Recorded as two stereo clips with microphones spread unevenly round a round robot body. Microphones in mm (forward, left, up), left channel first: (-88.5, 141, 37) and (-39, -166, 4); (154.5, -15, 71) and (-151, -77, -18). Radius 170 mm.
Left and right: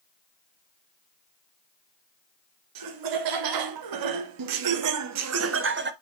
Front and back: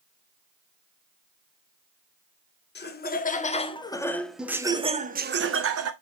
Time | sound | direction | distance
2.8 | laughter | 55° right | 1.8 m